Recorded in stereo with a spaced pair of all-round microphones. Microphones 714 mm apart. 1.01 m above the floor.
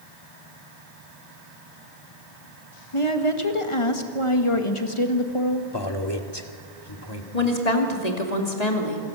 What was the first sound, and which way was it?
A woman speaking, 45° left (ahead or behind).